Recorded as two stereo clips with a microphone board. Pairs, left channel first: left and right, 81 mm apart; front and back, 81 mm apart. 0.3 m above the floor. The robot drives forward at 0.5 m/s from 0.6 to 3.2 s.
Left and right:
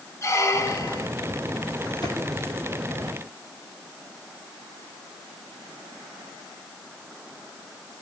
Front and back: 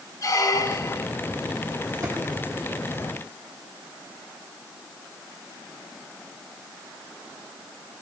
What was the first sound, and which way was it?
A squeak, 40° left.